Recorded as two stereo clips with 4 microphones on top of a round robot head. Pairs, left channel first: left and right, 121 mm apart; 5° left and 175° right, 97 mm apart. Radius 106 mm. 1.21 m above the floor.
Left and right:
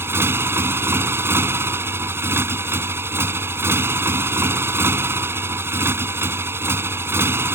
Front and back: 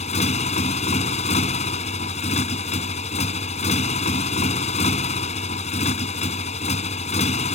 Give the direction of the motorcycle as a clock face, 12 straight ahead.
1 o'clock.